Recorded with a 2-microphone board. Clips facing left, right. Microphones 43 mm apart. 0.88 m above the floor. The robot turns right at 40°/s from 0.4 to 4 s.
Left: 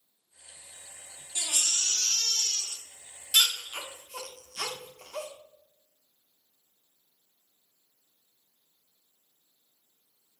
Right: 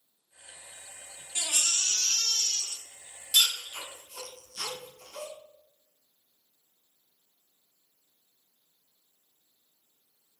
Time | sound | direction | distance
1.4 | a baby crying | 40° right (ahead or behind) | 0.8 m